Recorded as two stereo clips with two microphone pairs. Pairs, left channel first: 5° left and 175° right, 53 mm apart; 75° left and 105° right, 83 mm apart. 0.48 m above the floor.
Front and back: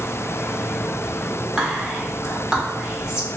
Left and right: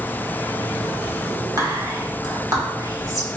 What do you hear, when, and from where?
1.6 s whispering: 110° right, 1.0 m